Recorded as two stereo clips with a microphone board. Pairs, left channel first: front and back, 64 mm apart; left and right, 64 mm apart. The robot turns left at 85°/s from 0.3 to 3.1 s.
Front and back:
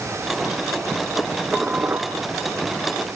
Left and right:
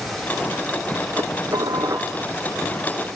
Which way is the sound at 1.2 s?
65° right.